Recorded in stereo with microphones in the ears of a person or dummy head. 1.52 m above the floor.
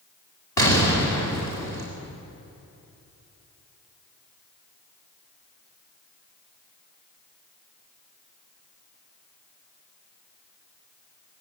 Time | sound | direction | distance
0.6 | an explosion | 20° left (ahead or behind) | 4.5 m